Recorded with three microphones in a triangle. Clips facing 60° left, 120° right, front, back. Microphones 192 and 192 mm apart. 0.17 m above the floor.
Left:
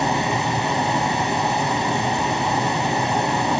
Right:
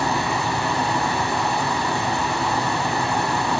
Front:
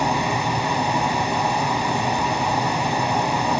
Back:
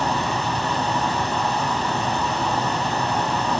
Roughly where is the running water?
Ahead left.